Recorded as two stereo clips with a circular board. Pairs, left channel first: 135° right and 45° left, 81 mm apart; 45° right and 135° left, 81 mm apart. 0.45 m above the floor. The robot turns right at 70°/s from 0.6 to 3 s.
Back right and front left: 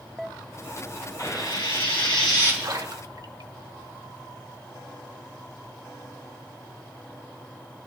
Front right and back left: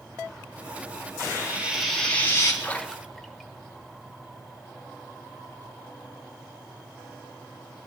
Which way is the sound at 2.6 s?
15° left.